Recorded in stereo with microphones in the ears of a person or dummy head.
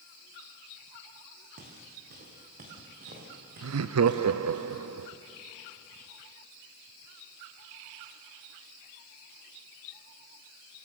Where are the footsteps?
45° right (ahead or behind), 5 m; by 4.6 s 50° right (ahead or behind), 7 m.